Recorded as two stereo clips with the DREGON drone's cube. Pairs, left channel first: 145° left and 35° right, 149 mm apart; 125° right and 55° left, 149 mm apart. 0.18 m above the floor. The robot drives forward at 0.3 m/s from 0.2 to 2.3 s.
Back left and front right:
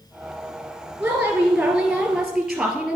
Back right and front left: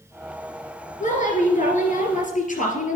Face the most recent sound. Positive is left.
turn(degrees=-125)